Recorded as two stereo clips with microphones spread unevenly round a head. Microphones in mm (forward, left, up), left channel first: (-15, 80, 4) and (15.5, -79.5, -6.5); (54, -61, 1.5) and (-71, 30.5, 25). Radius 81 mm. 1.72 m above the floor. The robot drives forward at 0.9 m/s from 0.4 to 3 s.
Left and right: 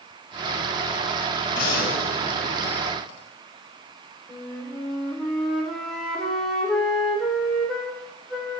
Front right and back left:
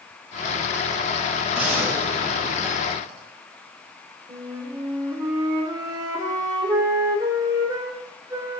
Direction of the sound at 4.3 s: 175° right.